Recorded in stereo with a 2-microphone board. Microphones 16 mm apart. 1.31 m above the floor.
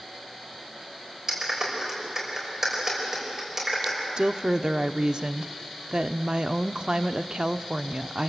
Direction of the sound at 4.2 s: 55° right (ahead or behind).